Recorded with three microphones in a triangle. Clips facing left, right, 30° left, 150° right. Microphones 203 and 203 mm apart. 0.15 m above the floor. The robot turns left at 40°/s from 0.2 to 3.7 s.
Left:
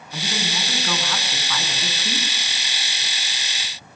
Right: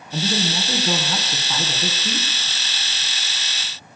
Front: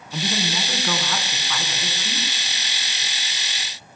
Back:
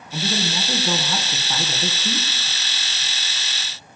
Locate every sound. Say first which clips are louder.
0.1 s a man speaking: right 6 dB, back 1 dB; 80° right, 1.4 m; by 2.3 s 165° right, 1.4 m